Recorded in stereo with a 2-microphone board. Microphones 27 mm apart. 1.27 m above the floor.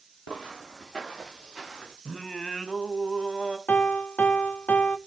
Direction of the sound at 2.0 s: 20° left (ahead or behind).